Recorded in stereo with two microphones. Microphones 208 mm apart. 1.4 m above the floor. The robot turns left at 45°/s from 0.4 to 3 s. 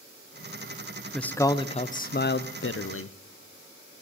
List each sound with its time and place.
1.1 s a man speaking: straight behind, 0.6 m; by 3.1 s 95° left, 0.6 m